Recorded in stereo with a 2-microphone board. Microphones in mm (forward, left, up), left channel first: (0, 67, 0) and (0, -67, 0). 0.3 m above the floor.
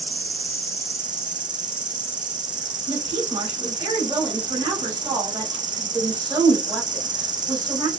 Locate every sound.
0.0 s an insect: 75° right (ahead or behind), 0.8 m
2.9 s a woman speaking: 40° right (ahead or behind), 1.5 m